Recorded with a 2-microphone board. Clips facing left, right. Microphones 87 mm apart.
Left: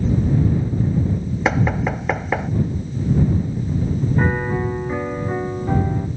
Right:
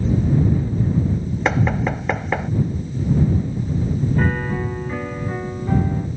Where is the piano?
15° left (ahead or behind).